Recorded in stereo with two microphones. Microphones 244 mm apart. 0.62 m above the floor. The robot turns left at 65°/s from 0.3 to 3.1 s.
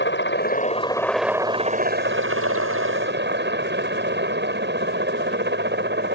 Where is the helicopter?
55° left; by 6.2 s 125° right.